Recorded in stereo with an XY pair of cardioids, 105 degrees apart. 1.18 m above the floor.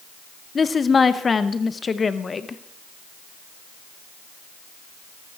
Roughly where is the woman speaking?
Ahead left.